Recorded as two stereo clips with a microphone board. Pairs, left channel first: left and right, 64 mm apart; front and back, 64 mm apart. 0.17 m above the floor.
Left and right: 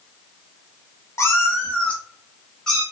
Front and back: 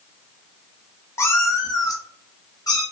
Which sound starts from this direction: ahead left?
A cat meowing, at 1.2 s.